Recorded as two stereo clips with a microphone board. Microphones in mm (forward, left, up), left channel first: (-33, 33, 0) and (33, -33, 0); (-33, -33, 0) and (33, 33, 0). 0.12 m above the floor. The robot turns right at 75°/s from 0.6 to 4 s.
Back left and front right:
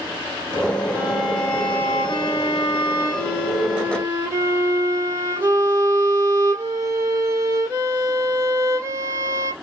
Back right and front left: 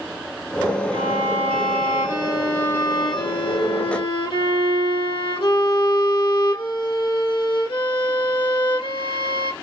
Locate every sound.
0.9 s a violin: 25° left, 3.5 m; by 9.5 s 100° right, 3.5 m